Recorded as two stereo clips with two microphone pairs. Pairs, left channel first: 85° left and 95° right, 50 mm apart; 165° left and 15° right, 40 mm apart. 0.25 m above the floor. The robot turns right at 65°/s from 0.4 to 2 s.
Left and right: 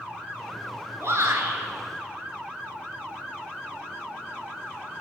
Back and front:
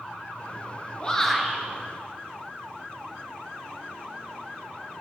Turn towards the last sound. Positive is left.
turn(degrees=-65)